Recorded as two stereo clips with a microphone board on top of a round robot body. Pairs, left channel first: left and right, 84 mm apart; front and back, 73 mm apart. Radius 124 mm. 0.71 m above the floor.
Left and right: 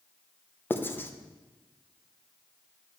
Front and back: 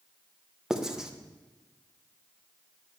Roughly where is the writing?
Left.